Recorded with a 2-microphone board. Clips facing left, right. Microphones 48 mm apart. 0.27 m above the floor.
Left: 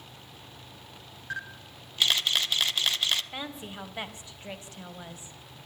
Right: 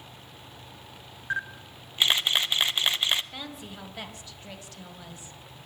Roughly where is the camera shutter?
Right.